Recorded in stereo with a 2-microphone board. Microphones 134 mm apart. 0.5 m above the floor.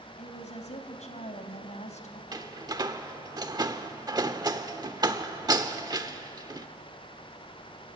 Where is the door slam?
30° right (ahead or behind), 1.1 m.